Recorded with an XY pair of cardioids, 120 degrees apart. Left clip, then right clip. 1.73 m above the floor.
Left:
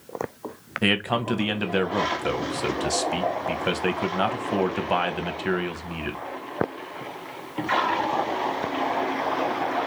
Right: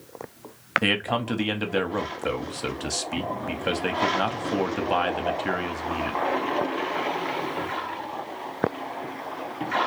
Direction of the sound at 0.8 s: 10° left.